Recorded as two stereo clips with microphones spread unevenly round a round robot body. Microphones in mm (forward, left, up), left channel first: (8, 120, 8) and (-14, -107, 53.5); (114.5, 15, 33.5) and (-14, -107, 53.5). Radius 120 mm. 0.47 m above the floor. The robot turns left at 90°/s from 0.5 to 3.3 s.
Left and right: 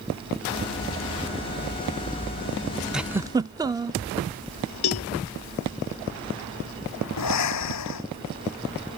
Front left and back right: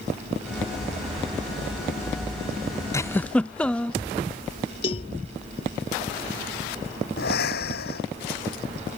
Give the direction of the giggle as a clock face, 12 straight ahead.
11 o'clock.